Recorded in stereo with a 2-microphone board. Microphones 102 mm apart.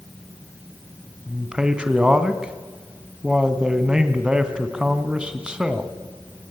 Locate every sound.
1.3 s a man speaking: 10° right (ahead or behind), 2.5 m